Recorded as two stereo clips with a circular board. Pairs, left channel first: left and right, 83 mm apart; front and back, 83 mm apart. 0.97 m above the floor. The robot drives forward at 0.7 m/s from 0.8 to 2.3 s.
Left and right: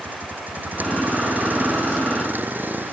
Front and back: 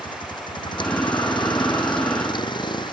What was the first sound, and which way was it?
A vehicle, 20° right.